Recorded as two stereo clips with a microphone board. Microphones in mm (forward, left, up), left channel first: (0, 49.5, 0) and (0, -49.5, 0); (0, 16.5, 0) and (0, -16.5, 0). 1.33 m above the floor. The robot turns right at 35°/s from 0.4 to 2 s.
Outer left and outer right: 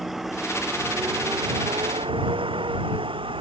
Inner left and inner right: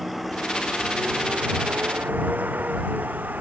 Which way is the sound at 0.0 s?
Centre (ahead or behind).